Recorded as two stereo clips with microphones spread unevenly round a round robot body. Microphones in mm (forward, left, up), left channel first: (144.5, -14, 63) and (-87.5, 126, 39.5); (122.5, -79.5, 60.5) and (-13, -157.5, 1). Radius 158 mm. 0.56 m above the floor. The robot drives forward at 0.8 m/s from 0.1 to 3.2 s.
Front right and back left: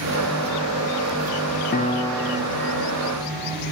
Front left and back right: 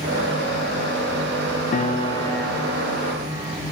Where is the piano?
5° left, 0.7 m; by 3.6 s straight behind, 1.0 m.